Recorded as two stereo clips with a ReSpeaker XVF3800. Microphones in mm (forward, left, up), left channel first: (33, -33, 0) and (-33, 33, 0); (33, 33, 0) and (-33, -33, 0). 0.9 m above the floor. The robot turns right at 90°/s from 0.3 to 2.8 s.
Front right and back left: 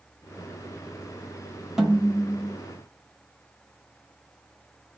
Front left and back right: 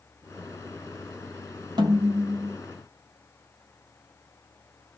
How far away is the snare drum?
About 1.1 m.